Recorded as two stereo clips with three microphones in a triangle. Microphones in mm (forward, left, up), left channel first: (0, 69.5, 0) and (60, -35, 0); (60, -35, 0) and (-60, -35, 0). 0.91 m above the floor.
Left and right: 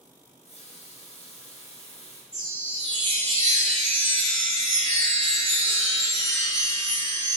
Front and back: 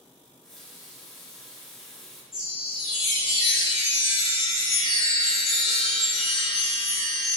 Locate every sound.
0.3 s a running tap: 85° left, 0.7 m
2.3 s a chime: 95° left, 1.6 m